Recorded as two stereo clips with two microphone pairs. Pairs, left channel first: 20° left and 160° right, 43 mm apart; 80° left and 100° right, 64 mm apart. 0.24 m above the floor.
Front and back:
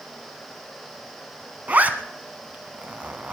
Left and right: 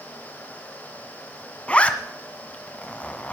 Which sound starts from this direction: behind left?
A zipper, at 1.7 s.